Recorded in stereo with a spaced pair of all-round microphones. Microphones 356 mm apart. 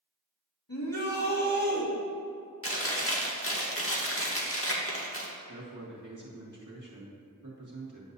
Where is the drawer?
No drawer in this recording.